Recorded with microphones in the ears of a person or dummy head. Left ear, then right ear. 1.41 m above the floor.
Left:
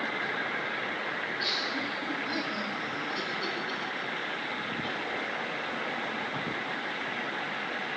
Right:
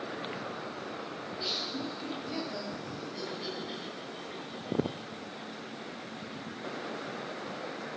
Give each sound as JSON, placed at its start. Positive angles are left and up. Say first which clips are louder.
{"t": 1.2, "sound": "laughter", "louder": "left 2 dB", "side_deg": -5, "distance_m": 3.5}